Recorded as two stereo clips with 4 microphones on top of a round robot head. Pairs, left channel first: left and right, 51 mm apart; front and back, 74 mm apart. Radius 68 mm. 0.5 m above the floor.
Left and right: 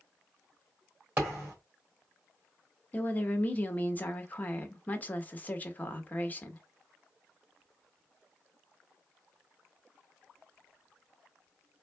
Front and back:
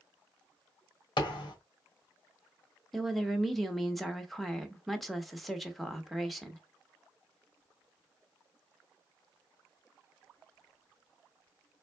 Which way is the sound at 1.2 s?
25° right.